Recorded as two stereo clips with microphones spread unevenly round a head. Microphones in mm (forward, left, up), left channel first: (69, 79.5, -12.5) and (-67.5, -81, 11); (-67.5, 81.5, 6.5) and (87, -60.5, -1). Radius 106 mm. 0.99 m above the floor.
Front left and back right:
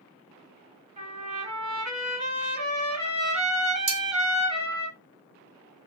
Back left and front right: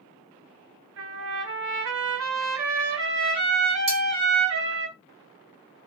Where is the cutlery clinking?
110° right, 1.9 m.